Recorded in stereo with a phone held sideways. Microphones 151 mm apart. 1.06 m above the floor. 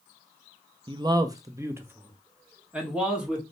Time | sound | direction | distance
0.9 | a man speaking | 30° right (ahead or behind) | 0.6 m